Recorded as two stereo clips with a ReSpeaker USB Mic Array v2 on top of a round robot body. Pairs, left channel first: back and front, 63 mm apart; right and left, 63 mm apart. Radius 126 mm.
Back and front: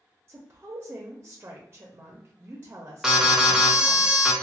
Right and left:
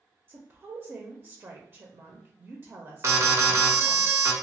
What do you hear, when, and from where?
0.3 s a woman speaking: 45° left, 0.6 m
3.0 s an alarm: 80° left, 0.8 m